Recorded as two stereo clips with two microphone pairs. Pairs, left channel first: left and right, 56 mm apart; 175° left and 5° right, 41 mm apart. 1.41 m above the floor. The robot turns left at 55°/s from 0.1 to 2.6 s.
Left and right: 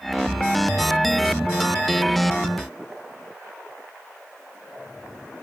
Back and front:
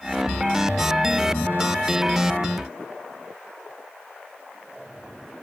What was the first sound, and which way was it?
Only background noise.